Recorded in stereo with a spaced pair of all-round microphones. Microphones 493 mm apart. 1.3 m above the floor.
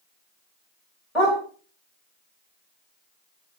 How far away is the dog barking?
About 1.8 m.